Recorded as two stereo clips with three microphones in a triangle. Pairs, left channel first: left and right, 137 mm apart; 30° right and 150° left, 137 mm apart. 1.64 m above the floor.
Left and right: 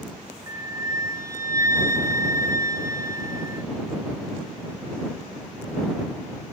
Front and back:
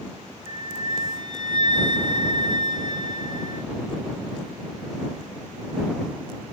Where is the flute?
155° right.